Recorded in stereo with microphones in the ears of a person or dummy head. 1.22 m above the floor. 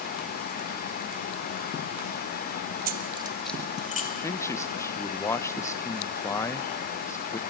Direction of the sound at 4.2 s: 15° left (ahead or behind).